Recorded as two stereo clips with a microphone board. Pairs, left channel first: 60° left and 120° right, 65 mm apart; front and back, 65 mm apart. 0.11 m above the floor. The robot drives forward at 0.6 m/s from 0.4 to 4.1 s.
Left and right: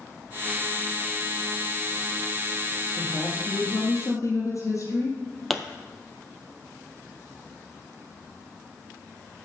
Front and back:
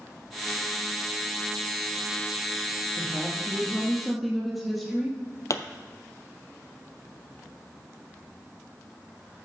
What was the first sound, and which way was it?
A woman speaking, 75° left.